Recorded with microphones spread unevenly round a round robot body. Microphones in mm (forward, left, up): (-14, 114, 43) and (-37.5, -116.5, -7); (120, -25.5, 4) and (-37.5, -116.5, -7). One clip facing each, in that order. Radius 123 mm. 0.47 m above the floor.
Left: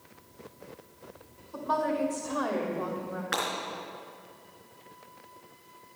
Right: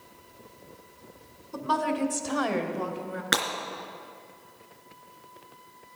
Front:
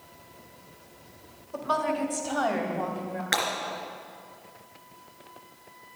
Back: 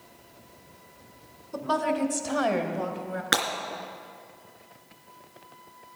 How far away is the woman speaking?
About 1.8 m.